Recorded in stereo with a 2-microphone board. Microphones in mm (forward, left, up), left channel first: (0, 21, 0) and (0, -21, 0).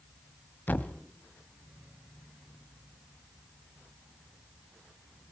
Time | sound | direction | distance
0.7 | a thud | 45° left (ahead or behind) | 1.0 m